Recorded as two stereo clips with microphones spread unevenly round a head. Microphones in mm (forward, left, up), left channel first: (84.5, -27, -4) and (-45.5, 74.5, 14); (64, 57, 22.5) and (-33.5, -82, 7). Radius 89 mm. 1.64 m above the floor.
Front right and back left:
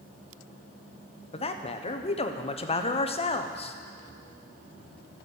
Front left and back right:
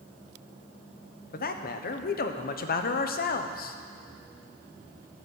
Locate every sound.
1.3 s a man speaking: 15° left, 1.1 m